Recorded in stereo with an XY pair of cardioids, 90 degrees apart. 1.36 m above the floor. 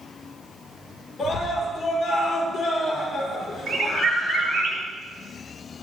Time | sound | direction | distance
1.2 | a scream | 55° left | 5 m
3.7 | a bird | 50° right | 4.5 m